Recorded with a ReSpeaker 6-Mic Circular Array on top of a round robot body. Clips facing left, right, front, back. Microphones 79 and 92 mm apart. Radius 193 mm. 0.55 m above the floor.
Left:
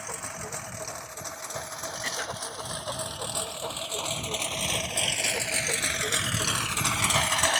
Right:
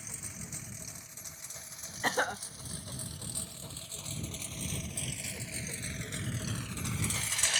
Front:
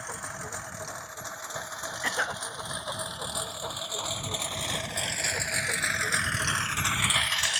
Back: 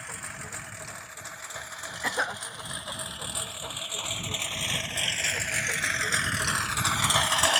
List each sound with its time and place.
0.0 s a lawn mower: 65° left; by 7.6 s 140° left
2.0 s a cough: 100° right